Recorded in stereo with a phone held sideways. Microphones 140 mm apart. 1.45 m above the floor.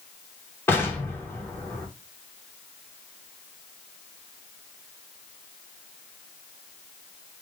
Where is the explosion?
15° left (ahead or behind), 0.9 m.